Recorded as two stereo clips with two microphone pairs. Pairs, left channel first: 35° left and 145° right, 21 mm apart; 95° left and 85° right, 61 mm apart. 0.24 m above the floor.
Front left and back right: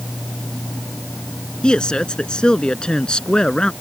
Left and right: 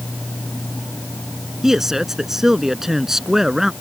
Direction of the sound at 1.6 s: Straight ahead.